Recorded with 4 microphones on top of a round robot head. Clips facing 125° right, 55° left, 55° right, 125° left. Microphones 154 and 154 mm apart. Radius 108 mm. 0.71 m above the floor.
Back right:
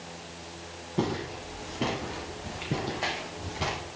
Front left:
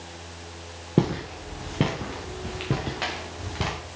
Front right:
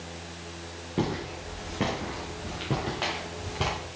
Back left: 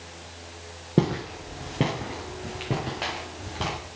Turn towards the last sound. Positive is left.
turn(degrees=30)